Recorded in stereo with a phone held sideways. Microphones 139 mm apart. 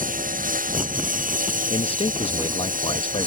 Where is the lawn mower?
80° right.